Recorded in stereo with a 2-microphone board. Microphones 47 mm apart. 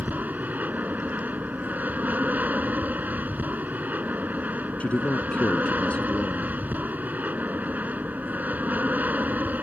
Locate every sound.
0.0 s an aircraft: 35° right (ahead or behind)
4.8 s a man speaking: 30° left (ahead or behind)